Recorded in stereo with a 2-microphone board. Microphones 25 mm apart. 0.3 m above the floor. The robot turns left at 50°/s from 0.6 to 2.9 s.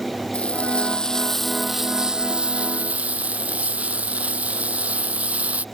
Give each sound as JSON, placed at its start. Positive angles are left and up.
{"t": 0.3, "sound": "frying", "azimuth_deg": 50}